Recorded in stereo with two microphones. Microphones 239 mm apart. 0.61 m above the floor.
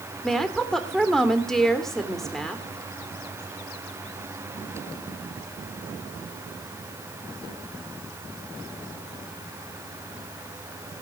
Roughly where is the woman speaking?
Centre.